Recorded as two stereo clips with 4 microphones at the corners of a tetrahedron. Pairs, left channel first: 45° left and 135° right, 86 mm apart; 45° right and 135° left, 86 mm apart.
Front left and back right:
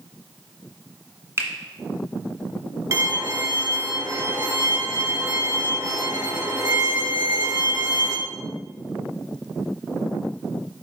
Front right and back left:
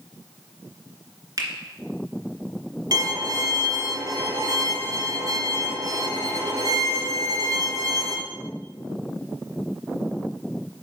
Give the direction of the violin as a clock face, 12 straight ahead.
6 o'clock.